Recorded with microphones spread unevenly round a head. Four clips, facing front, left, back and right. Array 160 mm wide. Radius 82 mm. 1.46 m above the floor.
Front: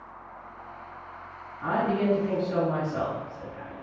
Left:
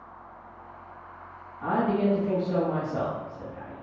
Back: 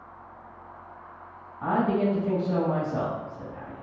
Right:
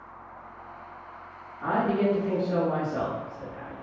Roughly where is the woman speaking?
Behind.